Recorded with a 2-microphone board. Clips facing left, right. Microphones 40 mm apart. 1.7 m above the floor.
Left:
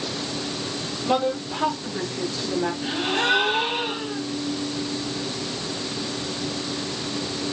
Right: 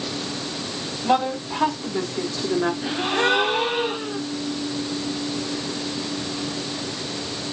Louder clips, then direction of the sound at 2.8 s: Right 2 dB; 40° right (ahead or behind).